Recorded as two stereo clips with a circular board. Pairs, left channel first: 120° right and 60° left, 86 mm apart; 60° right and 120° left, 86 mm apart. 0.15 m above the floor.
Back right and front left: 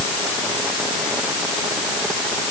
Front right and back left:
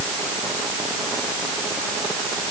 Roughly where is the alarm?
No alarm in this recording.